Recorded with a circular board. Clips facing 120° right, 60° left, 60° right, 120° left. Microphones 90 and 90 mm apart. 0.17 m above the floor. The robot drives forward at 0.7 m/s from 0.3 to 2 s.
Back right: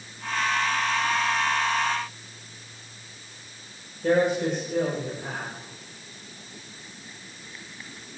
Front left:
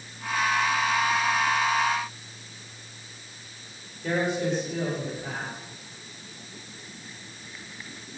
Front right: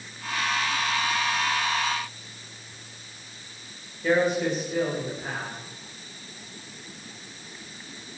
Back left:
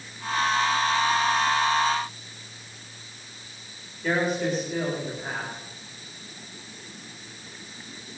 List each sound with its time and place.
4.0 s a man speaking: 150° right, 8.5 m